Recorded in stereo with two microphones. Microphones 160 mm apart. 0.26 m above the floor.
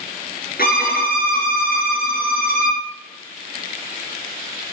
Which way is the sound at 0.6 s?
70° left (ahead or behind).